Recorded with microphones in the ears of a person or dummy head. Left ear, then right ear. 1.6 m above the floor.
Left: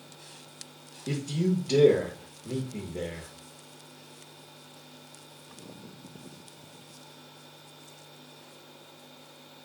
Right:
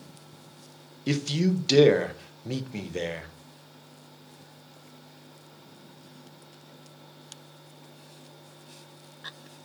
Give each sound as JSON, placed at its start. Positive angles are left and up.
{"t": 1.1, "sound": "a man speaking", "side_deg": -45, "distance_m": 0.5}